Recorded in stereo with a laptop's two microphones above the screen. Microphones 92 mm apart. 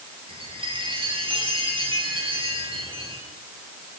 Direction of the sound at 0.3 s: 75° right (ahead or behind).